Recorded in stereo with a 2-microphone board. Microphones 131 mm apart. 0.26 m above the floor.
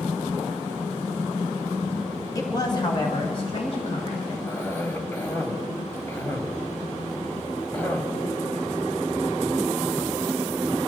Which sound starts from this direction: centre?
A cough, at 4.5 s.